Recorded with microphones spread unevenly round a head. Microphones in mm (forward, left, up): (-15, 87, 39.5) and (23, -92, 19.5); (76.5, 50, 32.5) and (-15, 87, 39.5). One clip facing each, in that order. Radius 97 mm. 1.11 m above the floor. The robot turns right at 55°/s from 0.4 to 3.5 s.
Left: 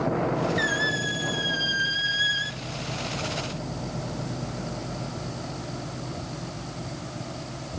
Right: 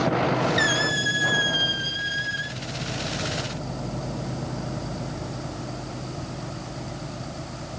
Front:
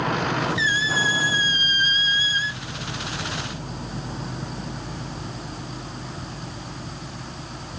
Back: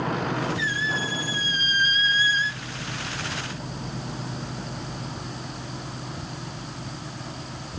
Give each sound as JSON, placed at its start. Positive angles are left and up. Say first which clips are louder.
{"t": 0.6, "sound": "a squeak", "louder": "right 2 dB, front 4 dB", "azimuth_deg": -40, "distance_m": 0.6}